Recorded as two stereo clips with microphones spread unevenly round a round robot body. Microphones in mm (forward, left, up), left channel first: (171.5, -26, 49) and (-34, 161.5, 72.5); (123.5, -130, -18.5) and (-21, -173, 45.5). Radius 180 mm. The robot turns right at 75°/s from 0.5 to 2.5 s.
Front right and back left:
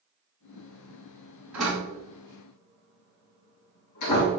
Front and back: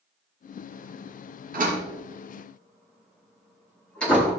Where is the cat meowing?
No cat meowing in this recording.